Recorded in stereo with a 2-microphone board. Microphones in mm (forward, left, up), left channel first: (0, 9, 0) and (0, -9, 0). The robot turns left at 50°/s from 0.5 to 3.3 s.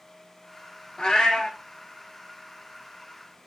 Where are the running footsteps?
No running footsteps in this recording.